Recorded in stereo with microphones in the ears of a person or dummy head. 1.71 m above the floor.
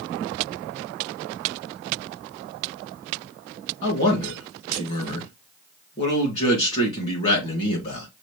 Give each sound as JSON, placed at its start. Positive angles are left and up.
{"t": 3.8, "sound": "a man speaking", "side_deg": 35, "distance_m": 2.5}